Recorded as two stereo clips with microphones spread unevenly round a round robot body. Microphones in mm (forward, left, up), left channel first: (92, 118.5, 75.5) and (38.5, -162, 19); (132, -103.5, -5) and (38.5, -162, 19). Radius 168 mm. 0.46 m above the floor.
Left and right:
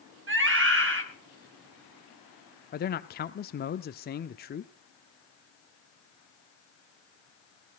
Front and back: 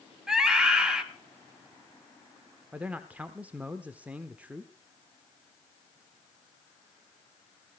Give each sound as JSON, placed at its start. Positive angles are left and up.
{"t": 0.3, "sound": "a scream", "azimuth_deg": -60, "distance_m": 3.5}
{"t": 2.7, "sound": "a man speaking", "azimuth_deg": 120, "distance_m": 0.8}